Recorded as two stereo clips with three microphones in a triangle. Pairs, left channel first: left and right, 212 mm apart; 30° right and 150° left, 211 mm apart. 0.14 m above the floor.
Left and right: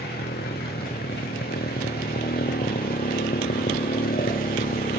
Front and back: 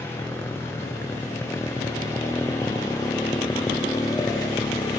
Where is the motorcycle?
50° left; by 5.0 s 45° left.